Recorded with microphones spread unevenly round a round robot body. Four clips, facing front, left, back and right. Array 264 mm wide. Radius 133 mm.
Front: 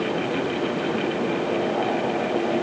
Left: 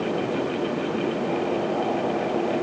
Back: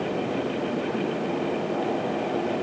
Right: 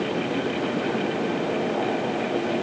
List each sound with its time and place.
Only background noise.